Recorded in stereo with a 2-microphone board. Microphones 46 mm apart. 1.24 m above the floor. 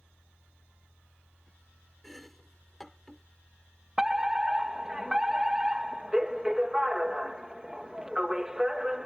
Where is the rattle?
No rattle in this recording.